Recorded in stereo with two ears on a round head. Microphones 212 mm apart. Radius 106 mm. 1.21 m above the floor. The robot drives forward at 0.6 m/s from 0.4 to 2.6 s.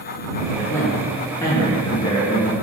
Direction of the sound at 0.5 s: 10° left (ahead or behind).